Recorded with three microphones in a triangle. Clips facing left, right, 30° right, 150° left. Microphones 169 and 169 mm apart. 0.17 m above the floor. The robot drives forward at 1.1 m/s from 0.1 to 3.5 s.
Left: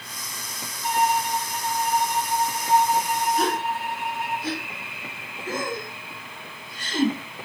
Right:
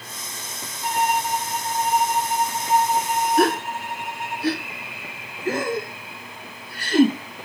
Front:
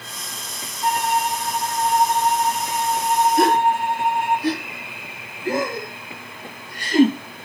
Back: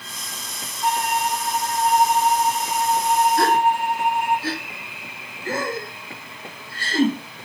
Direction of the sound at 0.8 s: 115° right.